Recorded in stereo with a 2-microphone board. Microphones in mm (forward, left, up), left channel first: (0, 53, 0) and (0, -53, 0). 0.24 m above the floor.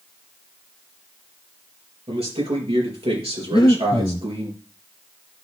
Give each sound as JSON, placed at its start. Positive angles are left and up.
{"t": 2.1, "sound": "a man speaking", "side_deg": -70, "distance_m": 4.5}
{"t": 3.5, "sound": "breathing", "side_deg": 40, "distance_m": 0.7}